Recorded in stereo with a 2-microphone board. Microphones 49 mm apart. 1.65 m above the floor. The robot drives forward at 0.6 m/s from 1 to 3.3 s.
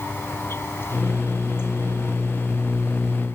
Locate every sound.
0.0 s an insect: 50° left (ahead or behind); by 3.4 s 55° left (ahead or behind)